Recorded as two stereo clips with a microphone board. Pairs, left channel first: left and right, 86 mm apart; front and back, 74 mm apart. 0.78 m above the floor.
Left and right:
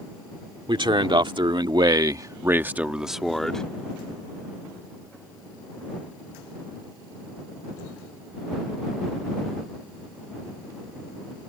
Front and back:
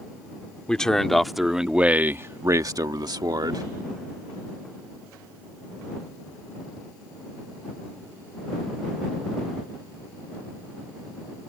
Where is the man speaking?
80° right; by 3.6 s 170° left.